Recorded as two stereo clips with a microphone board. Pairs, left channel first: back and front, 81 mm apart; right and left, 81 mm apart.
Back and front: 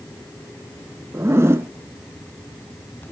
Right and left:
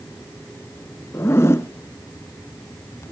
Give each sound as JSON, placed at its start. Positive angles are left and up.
{"t": 1.1, "sound": "a zipper", "azimuth_deg": -45, "distance_m": 0.6}